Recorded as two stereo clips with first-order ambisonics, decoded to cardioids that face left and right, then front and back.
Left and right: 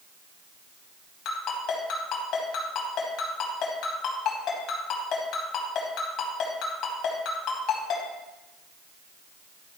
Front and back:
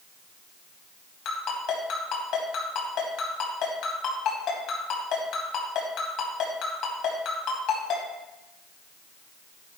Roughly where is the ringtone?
Ahead left.